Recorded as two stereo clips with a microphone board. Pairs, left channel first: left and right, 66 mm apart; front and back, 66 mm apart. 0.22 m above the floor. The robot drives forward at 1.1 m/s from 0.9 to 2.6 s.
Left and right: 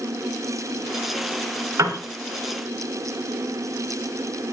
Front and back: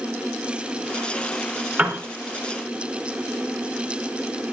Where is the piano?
120° right, 3 m; by 2.0 s 125° right, 3 m.